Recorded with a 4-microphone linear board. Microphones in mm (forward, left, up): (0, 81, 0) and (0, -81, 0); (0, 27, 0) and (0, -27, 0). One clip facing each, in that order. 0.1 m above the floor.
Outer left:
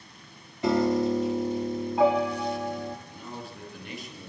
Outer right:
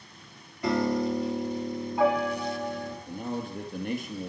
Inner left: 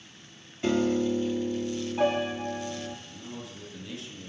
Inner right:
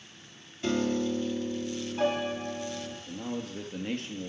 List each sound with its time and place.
0.6 s a piano: 20° left (ahead or behind), 2.5 m
3.1 s a man speaking: 50° right (ahead or behind), 2.5 m